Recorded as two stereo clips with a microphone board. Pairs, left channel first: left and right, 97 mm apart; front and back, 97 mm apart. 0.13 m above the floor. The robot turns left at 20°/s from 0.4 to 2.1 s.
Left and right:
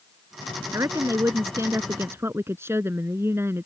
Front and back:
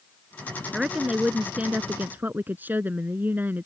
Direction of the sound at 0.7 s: 100° right.